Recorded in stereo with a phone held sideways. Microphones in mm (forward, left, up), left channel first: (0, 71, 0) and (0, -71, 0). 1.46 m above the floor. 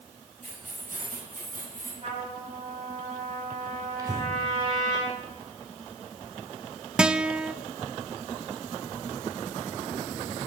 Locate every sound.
0.4 s keys jangling: 65° right (ahead or behind), 6 m; by 1.9 s 75° right (ahead or behind), 7.5 m
2.0 s a trumpet: 45° right (ahead or behind), 8 m
4.0 s breathing: 25° right (ahead or behind), 2.5 m
7.0 s a guitar: 5° right (ahead or behind), 0.5 m